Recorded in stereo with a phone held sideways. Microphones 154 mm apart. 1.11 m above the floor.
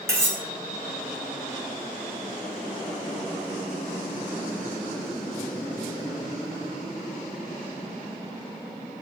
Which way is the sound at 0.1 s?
20° right (ahead or behind).